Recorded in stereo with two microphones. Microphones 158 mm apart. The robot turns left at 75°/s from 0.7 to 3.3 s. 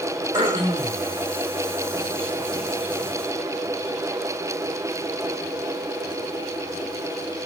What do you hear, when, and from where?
0.3 s throat clearing: 30° right (ahead or behind), 1.1 m; by 1.0 s 55° right (ahead or behind), 1.1 m